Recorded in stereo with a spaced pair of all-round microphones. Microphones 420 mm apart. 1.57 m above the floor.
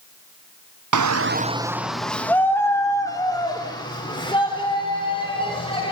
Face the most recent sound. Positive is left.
turn(degrees=15)  # may be behind; listen again after turning